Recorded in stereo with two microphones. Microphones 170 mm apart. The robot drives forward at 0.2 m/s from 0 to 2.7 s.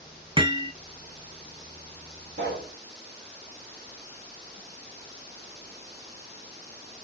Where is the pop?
70° right (ahead or behind), 2 m.